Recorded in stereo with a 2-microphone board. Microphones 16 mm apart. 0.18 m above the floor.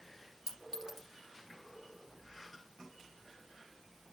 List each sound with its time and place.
0.5 s a clink: 40° right (ahead or behind), 2.5 m